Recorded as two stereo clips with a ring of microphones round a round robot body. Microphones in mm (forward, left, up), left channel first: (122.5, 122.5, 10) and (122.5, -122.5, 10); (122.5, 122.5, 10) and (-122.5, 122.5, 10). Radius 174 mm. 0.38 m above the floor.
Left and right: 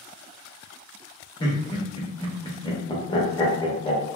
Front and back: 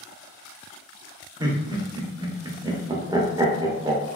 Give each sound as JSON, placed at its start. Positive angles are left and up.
{"t": 1.4, "sound": "laughter", "azimuth_deg": 130, "distance_m": 0.8}